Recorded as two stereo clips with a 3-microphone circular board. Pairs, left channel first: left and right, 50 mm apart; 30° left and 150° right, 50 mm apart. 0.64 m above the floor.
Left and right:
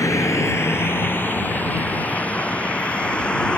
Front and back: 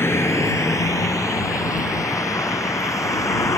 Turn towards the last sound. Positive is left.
turn(degrees=15)